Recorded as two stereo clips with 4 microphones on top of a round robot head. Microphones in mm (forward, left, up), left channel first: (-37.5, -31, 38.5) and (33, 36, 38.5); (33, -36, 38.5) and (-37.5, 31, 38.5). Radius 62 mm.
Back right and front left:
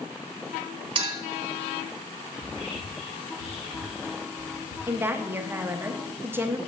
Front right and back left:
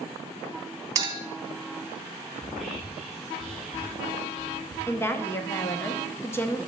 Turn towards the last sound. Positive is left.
turn(degrees=-5)